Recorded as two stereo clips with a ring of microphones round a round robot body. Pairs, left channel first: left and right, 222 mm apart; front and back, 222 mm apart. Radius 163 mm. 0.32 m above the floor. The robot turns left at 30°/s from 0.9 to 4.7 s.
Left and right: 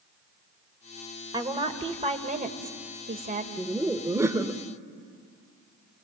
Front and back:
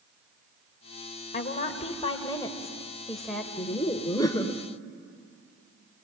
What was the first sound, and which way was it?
A woman speaking, 30° right.